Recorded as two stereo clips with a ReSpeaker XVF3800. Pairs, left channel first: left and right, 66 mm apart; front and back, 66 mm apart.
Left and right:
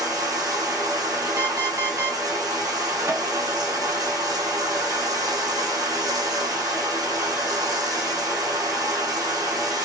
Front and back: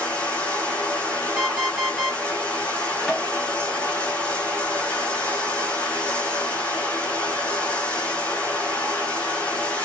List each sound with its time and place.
0.0 s running water: 75° right, 2.0 m
1.4 s an alarm clock: 105° right, 1.6 m
3.1 s tapping: 90° right, 2.5 m